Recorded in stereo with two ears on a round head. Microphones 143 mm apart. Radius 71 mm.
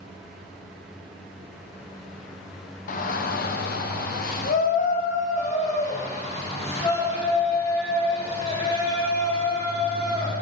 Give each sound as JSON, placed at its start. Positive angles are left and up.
{"t": 2.9, "sound": "a shout", "side_deg": 50, "distance_m": 0.8}